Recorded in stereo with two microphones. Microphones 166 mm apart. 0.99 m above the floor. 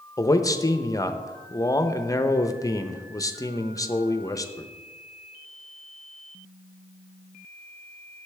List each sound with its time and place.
0.2 s a man speaking: 20° left (ahead or behind), 0.5 m